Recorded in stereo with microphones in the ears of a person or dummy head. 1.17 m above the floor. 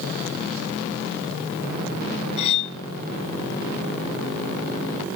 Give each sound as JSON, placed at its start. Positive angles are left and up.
{"t": 2.4, "sound": "cutlery clinking", "side_deg": 40, "distance_m": 1.9}